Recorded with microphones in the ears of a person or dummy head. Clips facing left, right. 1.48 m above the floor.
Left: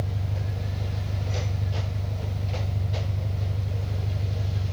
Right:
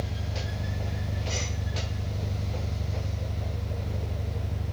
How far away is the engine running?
About 1.1 m.